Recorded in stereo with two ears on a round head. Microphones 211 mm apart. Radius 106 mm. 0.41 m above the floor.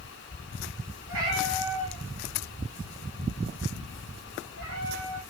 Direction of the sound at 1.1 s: 65° right (ahead or behind).